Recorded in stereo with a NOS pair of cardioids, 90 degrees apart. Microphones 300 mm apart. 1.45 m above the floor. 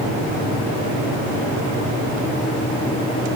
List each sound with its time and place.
Only background noise.